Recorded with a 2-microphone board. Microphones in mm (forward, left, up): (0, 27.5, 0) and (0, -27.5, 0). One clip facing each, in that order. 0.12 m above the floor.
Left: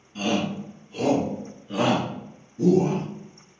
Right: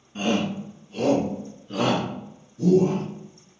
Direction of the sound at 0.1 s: 25° right (ahead or behind).